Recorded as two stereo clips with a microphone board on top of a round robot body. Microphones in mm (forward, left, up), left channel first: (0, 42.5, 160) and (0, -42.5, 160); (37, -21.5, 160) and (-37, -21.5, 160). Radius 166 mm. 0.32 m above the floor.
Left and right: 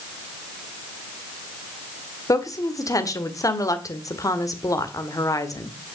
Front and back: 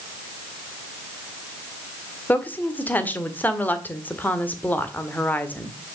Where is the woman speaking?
60° left, 2 m.